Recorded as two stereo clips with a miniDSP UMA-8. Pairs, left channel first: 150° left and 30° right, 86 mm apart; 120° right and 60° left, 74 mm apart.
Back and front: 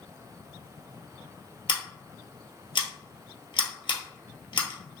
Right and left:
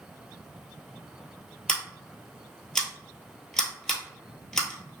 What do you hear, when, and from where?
1.7 s scissors: 155° left, 1.3 m